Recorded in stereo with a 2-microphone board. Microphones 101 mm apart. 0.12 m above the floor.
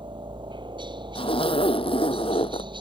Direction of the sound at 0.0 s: 50° right (ahead or behind).